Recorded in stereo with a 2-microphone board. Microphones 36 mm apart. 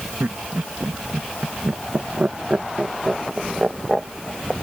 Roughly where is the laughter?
Right.